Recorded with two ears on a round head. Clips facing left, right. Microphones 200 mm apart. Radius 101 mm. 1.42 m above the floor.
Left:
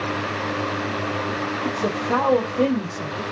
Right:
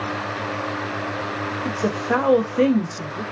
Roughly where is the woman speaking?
Centre.